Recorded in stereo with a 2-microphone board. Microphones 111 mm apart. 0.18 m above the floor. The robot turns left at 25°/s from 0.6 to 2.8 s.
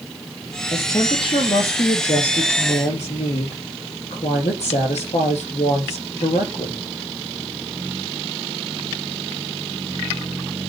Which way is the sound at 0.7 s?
140° left.